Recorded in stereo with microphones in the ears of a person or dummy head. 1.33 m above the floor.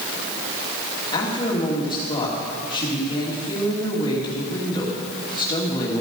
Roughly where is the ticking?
I don't hear ticking.